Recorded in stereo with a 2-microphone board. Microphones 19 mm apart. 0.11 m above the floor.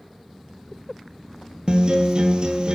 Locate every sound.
1.7 s a guitar: 40° right (ahead or behind), 1.0 m